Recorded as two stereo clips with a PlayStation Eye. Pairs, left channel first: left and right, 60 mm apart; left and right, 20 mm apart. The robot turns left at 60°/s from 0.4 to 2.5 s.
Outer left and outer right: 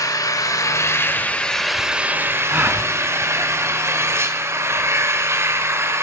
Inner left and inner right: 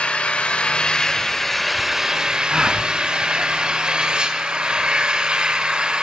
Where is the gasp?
30° right (ahead or behind), 1.5 m.